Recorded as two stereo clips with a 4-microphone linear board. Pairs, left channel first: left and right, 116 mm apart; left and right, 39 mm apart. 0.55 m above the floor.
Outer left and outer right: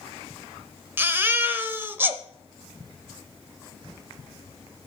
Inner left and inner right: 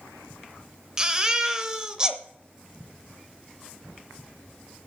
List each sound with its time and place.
1.0 s a baby crying: 20° right (ahead or behind), 0.7 m